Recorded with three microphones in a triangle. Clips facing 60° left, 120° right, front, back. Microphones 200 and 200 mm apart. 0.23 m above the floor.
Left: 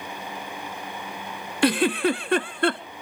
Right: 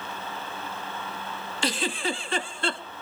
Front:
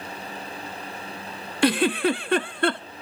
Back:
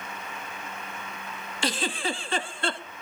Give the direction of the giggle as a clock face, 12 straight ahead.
11 o'clock.